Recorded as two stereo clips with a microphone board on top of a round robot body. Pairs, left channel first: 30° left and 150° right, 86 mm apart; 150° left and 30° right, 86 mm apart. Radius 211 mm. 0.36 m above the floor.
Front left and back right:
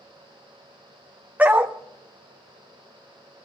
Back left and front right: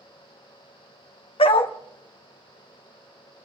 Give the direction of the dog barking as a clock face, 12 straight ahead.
7 o'clock.